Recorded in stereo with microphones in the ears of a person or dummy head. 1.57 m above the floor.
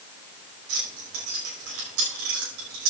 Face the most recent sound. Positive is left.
turn(degrees=-80)